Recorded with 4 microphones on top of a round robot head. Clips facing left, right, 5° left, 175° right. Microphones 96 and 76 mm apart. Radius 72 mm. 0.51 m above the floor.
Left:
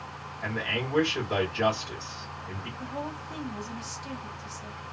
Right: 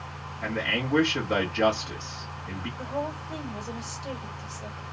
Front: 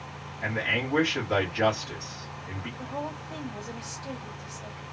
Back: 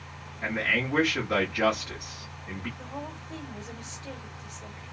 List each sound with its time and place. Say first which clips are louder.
0.4 s a man speaking: right 2 dB, back 1 dB; 85° right, 1.9 m
2.8 s a woman speaking: right 4 dB, front 4 dB; 65° right, 1.9 m